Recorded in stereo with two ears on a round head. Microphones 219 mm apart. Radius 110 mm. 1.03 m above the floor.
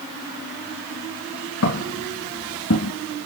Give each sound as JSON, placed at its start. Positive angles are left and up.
{"t": 1.6, "sound": "footsteps", "side_deg": 60, "distance_m": 5.0}